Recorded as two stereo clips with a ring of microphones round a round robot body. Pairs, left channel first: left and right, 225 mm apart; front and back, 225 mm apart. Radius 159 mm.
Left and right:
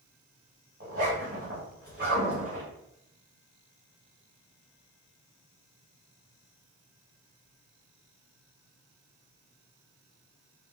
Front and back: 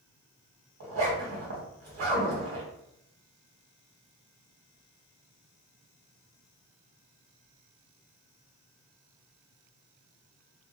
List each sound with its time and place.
0.8 s a zipper: 150° right, 1.6 m